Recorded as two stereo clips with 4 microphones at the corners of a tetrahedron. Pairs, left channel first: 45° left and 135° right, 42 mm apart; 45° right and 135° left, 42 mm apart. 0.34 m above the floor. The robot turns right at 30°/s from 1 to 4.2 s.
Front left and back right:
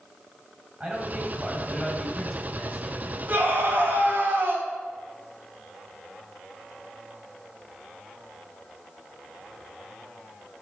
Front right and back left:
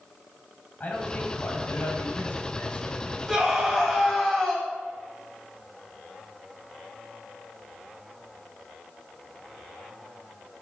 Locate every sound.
0.8 s a man speaking: 80° right, 2.5 m; by 3.2 s 15° right, 2.5 m
3.3 s a scream: 145° right, 2 m; by 4.7 s 120° right, 2 m